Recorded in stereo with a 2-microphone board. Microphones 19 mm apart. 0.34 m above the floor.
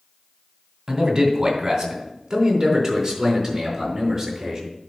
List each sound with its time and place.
0.9 s a man speaking: 25° right (ahead or behind), 2.5 m; by 4.6 s 15° right (ahead or behind), 5 m